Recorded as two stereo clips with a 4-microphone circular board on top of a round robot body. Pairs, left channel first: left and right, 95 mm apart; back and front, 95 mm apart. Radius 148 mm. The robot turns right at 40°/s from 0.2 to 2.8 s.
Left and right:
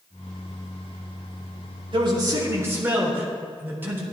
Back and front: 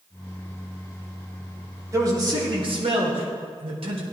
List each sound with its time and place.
1.9 s a man speaking: 55° right, 4 m; by 4.0 s 20° right, 4 m